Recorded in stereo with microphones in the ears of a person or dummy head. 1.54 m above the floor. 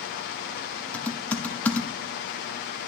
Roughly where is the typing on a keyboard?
Centre.